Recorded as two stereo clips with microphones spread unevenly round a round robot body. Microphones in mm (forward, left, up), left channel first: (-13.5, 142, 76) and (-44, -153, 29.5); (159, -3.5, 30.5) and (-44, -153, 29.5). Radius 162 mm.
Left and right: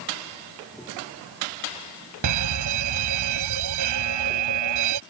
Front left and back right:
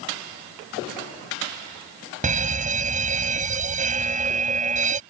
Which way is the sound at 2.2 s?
85° right.